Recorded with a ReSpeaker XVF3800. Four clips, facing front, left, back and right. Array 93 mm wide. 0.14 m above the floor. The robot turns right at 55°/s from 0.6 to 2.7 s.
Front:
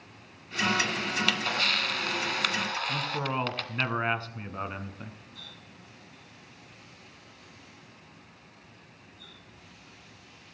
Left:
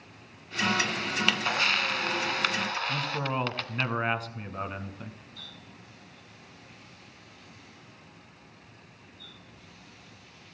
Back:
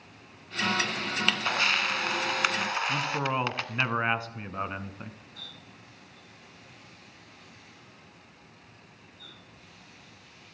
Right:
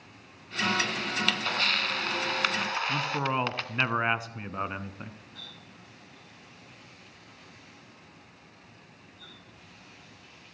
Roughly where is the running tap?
Behind right.